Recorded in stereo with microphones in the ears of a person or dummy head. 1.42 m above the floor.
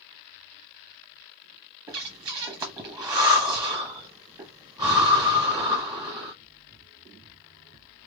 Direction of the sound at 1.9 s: 15° right (ahead or behind).